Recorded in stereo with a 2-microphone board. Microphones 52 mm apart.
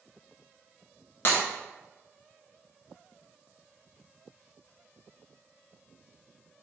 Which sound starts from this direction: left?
Breaking glass, at 1.2 s.